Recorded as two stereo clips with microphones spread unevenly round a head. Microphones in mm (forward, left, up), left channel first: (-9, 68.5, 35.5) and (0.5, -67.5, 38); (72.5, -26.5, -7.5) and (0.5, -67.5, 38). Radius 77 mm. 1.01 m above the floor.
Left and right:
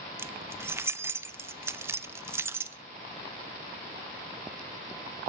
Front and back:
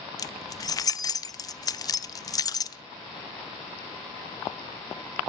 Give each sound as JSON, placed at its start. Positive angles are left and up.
{"t": 0.2, "sound": "keys jangling", "azimuth_deg": -10, "distance_m": 0.8}